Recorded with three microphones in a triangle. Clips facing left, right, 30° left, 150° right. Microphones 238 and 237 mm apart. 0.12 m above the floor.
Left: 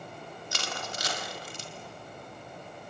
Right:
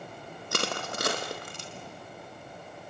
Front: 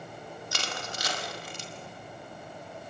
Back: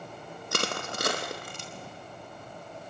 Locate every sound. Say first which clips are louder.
0.5 s crushing: right 7 dB, back 8 dB; 120° right, 3 m